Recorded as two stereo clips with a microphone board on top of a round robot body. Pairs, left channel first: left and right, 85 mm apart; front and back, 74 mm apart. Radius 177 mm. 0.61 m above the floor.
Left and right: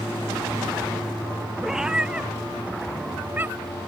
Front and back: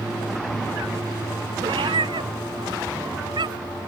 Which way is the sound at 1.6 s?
175° right.